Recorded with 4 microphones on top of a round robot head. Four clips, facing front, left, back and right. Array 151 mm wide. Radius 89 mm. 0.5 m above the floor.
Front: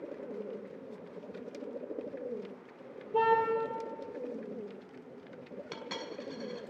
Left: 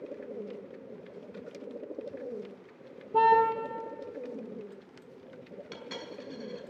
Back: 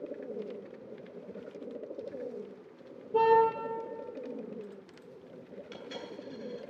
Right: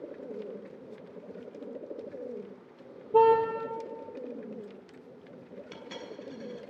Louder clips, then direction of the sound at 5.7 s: Left 1 dB, front 1 dB; straight ahead.